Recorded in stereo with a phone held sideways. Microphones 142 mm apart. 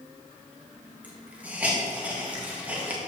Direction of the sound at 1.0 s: 10° right (ahead or behind).